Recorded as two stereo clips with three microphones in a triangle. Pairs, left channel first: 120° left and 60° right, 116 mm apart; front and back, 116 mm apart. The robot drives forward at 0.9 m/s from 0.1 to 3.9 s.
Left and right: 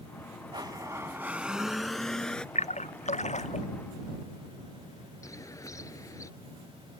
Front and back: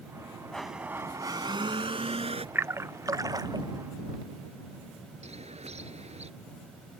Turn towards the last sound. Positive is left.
turn(degrees=180)